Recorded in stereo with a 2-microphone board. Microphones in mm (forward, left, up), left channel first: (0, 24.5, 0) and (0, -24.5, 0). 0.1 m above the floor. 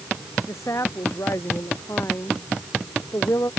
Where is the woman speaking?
80° left.